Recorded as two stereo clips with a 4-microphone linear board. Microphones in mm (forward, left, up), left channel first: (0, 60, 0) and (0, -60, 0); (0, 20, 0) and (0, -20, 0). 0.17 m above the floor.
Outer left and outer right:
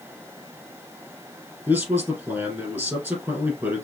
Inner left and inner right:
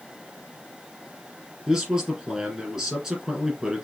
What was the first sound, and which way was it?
A man speaking, 20° right (ahead or behind).